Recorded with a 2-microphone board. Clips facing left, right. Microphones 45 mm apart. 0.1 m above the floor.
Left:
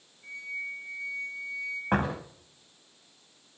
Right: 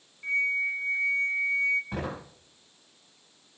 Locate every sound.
0.2 s a flute: 60° right (ahead or behind), 1.9 m
1.9 s a door slam: 55° left (ahead or behind), 7.5 m